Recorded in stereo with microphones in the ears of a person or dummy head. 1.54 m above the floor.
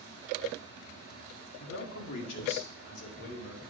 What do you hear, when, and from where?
1.6 s a man speaking: 60° left (ahead or behind), 1.4 m; by 3.6 s 65° left (ahead or behind), 2.5 m